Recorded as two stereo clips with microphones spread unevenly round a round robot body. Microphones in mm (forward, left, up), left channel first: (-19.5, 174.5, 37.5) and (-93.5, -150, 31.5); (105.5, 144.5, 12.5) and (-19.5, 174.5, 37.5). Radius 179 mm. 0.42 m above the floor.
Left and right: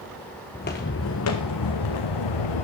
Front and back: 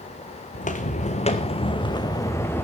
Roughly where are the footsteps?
Ahead.